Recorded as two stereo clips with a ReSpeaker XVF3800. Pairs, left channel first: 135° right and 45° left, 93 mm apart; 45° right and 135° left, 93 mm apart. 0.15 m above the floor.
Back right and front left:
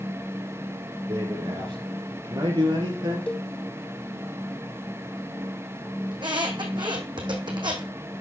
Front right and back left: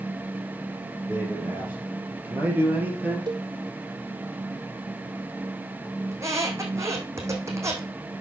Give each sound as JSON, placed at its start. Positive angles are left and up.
{"t": 1.1, "sound": "a man speaking", "azimuth_deg": 65, "distance_m": 5.0}
{"t": 3.3, "sound": "a cowbell", "azimuth_deg": 150, "distance_m": 0.8}
{"t": 6.1, "sound": "a squeak", "azimuth_deg": 75, "distance_m": 2.0}